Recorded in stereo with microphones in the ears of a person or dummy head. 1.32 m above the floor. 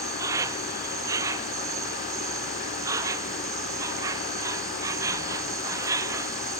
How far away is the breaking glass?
I don't hear breaking glass.